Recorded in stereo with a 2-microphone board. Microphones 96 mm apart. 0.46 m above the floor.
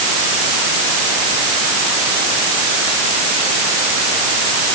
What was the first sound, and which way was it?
Only background noise.